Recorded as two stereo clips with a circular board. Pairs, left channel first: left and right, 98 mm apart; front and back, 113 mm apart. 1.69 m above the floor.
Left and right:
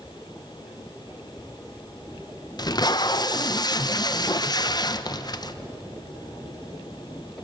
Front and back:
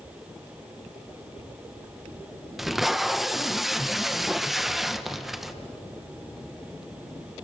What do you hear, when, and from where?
2.6 s tape being pulled: 90° left, 0.9 m